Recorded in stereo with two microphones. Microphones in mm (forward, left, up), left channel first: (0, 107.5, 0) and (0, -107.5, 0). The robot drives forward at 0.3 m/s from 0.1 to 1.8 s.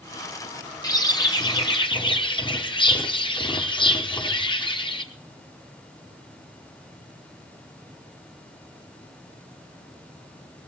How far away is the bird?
About 1.0 m.